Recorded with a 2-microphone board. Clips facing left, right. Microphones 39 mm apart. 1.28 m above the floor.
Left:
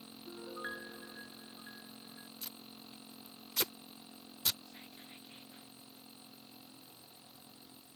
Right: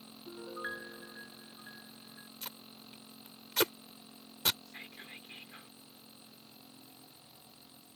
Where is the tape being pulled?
55° right (ahead or behind).